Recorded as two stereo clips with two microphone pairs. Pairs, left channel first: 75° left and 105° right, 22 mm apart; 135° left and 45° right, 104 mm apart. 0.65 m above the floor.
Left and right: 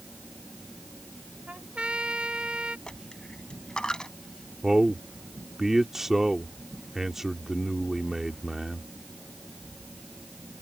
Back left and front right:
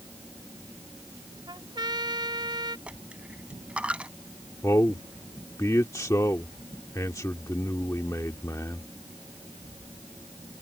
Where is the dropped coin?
30° left.